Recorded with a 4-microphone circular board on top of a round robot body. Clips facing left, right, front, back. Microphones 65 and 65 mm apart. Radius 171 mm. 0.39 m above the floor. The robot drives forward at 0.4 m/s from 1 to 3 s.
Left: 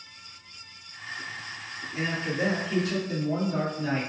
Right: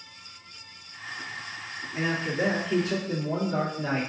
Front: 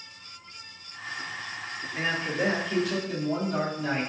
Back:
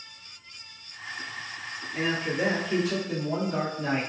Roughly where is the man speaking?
Right.